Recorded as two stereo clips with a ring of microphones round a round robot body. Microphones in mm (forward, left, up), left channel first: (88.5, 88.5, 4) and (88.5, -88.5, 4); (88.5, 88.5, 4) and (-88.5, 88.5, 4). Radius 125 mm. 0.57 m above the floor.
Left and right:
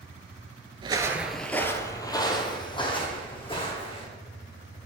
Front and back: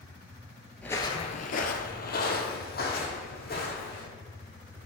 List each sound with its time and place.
0.8 s footsteps: 75° right, 0.5 m; by 4.1 s 30° left, 2.5 m